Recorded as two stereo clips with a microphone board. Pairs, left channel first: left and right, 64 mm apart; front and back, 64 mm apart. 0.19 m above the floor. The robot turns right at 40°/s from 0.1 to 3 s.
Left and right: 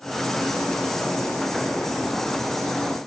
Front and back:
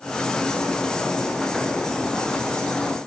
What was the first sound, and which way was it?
Only background noise.